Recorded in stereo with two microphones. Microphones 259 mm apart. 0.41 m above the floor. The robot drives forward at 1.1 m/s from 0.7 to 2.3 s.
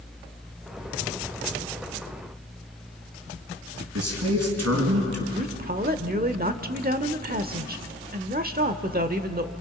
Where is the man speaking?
70° right (ahead or behind), 5 m.